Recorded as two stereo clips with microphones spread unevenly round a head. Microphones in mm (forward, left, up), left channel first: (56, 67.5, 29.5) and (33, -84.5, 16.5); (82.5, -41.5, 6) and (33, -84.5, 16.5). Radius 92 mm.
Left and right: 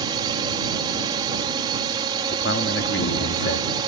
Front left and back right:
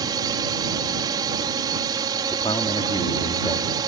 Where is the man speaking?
85° left.